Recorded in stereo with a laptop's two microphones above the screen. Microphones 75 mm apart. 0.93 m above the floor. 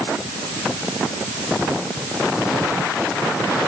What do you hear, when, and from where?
Only background noise.